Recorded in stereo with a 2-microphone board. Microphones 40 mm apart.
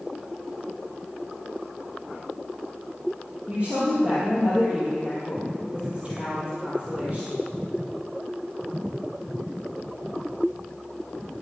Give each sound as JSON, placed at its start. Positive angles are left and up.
{"t": 3.5, "sound": "a woman speaking", "side_deg": -25, "distance_m": 4.0}